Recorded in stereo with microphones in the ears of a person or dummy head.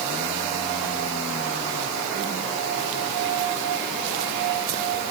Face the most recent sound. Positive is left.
No sound to turn to.